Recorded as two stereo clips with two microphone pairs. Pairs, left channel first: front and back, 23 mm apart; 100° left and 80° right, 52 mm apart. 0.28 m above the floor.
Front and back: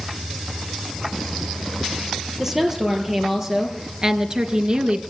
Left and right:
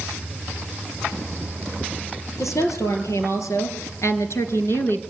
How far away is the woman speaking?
About 6 m.